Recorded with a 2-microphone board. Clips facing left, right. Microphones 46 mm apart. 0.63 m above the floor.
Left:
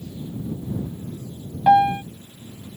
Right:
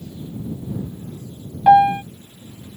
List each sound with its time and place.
1.7 s a piano: 15° right (ahead or behind)